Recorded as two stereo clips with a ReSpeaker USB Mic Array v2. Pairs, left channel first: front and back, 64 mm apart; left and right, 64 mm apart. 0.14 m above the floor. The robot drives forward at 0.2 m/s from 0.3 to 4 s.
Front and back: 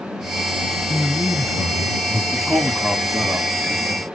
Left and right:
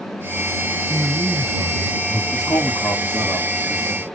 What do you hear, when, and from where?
0.9 s a man speaking: 65° right, 1.4 m; by 2.2 s 80° right, 1.3 m
2.3 s a man speaking: 100° left, 2.5 m; by 4.1 s 110° left, 2.5 m